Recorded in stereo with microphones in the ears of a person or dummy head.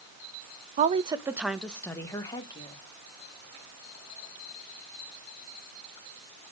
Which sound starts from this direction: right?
A woman speaking, at 0.8 s.